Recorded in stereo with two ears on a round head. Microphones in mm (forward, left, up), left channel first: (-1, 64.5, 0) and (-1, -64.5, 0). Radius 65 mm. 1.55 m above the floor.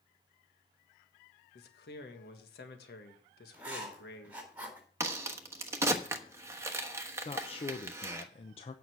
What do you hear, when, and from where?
1.6 s a man speaking: 75° left (ahead or behind), 1.8 m
3.5 s writing: 10° right (ahead or behind), 4.5 m
5.0 s a crack: 20° right (ahead or behind), 1.3 m
7.2 s a man speaking: 40° left (ahead or behind), 0.9 m